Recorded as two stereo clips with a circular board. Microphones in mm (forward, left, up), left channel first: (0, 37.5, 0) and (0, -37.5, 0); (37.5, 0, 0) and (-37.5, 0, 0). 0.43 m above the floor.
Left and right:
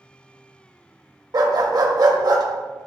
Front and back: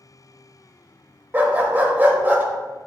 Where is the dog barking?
115° right, 0.5 m.